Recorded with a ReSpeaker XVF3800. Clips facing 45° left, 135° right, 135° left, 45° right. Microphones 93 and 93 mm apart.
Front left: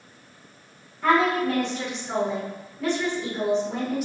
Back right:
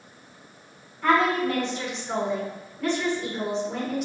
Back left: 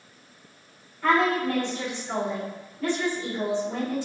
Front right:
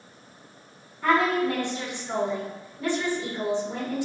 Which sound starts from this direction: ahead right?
A woman speaking, at 1.0 s.